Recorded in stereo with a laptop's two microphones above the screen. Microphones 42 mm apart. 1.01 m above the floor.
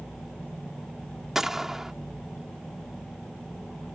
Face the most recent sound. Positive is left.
turn(degrees=-10)  # may be behind; listen again after turning